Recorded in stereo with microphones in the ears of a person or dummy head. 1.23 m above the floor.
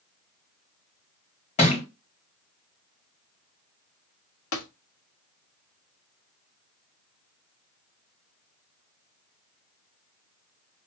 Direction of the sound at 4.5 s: 80° left.